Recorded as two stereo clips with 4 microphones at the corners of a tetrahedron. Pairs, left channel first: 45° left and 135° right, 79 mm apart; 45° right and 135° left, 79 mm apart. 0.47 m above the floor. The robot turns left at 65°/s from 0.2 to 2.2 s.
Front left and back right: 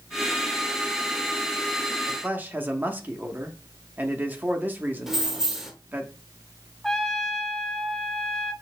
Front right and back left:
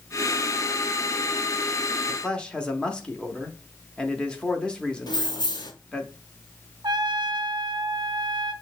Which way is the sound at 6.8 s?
130° left.